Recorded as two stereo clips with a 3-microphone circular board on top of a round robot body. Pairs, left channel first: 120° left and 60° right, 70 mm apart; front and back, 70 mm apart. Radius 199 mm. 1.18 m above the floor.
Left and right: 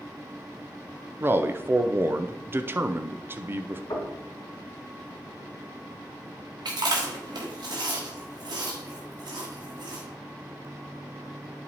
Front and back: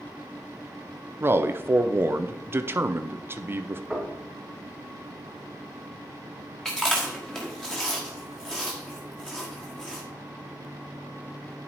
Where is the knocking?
95° left, 2 m.